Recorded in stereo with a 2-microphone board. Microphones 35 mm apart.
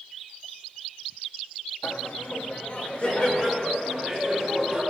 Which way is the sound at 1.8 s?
65° left (ahead or behind).